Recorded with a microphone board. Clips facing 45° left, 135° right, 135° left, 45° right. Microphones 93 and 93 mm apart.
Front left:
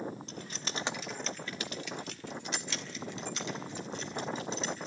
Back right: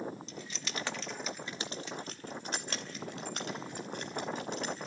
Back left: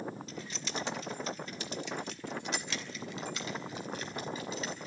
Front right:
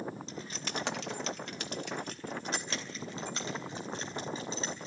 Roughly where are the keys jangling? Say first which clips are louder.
Front left 1 dB, front right 1 dB; ahead.